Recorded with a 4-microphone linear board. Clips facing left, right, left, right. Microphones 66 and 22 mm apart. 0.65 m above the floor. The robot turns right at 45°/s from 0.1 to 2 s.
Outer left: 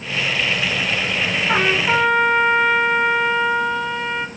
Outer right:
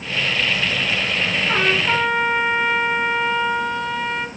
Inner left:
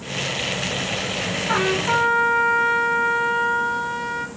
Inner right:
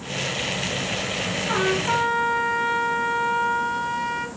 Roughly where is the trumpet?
Centre.